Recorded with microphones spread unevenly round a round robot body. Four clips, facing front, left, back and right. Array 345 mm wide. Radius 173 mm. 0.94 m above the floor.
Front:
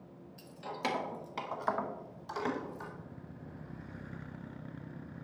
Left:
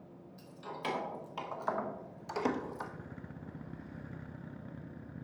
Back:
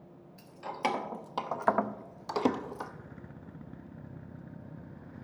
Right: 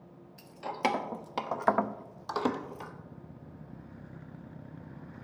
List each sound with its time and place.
0.4 s keys jangling: 85° right, 1.6 m; by 2.9 s 175° left, 1.1 m